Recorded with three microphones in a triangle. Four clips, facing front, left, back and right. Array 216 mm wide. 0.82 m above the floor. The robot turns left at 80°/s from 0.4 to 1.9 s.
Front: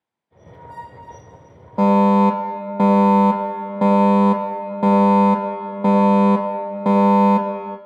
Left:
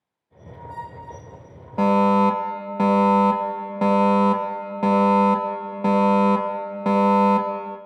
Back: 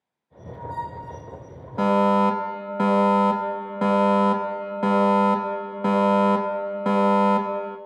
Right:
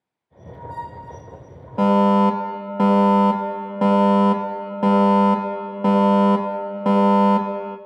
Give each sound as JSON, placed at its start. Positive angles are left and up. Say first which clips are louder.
{"t": 1.8, "sound": "a fire alarm", "louder": "right 2 dB, front 5 dB", "azimuth_deg": -5, "distance_m": 1.8}